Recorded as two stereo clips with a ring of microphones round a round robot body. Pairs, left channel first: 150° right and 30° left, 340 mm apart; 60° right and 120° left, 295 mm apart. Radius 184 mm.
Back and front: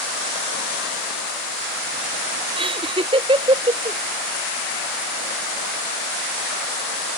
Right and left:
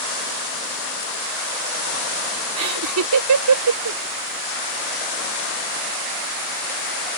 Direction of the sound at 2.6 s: 105° left.